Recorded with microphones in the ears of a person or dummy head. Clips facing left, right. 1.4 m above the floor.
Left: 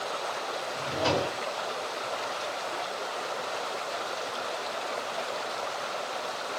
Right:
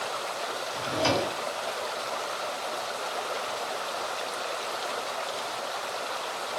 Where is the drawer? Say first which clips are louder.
Right 1 dB; 45° right (ahead or behind), 1.8 m.